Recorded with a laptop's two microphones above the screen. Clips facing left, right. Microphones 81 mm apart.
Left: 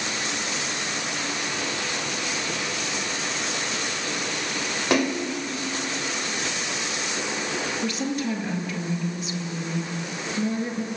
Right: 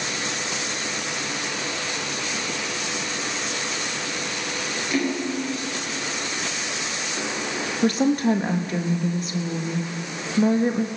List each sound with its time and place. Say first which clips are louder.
4.9 s a splash: left 2 dB; 85° left, 3 m
7.8 s a woman speaking: right 11 dB; 45° right (ahead or behind), 1.4 m